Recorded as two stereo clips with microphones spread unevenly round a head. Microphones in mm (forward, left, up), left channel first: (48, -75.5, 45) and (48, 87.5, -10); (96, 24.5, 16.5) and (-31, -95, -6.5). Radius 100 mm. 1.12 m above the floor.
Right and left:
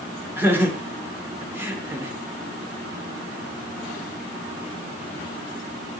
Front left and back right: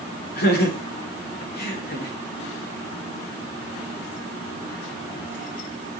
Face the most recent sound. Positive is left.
turn(degrees=15)